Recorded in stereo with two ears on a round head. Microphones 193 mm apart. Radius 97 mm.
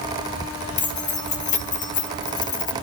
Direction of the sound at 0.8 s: 35° left (ahead or behind).